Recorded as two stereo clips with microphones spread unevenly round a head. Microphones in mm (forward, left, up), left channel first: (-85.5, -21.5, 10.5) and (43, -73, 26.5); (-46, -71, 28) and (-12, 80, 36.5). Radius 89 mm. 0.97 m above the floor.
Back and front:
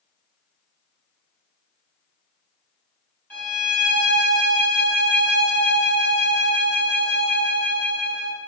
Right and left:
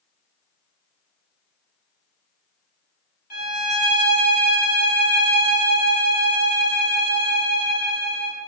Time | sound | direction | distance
3.3 | a violin | 130° right | 1.8 m